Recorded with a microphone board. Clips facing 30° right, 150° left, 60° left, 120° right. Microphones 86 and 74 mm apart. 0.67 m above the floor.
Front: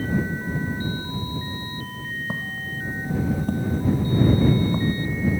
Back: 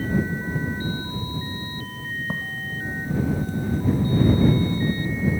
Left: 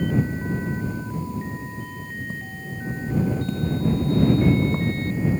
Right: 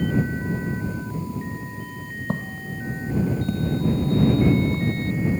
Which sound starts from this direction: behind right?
Footsteps, at 2.3 s.